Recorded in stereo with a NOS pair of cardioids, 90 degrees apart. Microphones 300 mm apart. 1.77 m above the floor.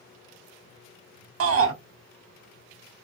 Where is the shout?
50° right, 1.3 m.